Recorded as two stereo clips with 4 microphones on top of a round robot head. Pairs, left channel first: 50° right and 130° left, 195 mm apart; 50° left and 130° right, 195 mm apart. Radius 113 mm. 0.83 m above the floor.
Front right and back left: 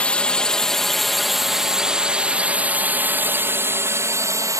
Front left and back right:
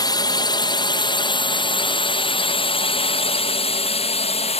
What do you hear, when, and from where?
0.0 s a drone: 25° left; by 4.6 s 70° left